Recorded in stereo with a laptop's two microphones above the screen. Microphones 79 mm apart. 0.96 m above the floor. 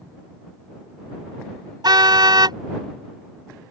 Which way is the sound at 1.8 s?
65° right (ahead or behind).